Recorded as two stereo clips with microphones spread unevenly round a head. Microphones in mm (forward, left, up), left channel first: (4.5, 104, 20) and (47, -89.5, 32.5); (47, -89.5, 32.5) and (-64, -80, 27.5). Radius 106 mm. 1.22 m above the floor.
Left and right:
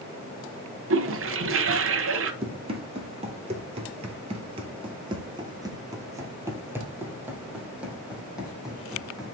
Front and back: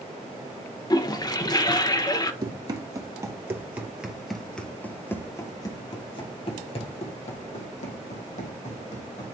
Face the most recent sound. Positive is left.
turn(degrees=10)